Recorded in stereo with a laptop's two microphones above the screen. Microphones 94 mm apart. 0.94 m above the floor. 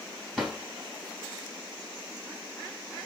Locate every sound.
0.4 s a drawer: 5° right (ahead or behind), 3 m